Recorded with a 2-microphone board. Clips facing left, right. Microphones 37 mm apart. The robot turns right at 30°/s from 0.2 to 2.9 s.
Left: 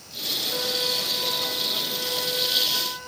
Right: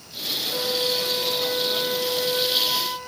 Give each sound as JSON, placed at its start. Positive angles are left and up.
{"t": 0.5, "sound": "a flute", "azimuth_deg": 170, "distance_m": 0.8}